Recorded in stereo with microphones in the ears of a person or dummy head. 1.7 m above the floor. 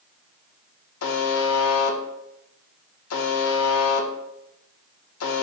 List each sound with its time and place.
1.0 s a buzzer: 85° left, 0.5 m